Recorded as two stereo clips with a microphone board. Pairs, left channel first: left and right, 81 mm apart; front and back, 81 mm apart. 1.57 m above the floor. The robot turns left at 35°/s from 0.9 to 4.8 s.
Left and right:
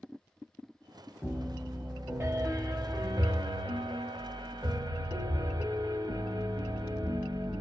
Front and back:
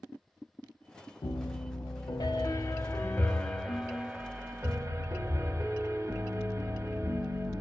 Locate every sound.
1.2 s a piano: straight ahead, 0.6 m; by 7.6 s 125° right, 0.6 m